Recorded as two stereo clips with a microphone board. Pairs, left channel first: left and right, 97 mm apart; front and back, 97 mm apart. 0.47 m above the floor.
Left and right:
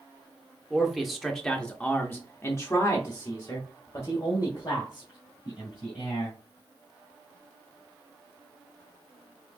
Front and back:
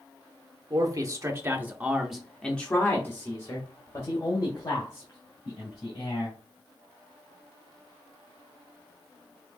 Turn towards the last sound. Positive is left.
turn(degrees=40)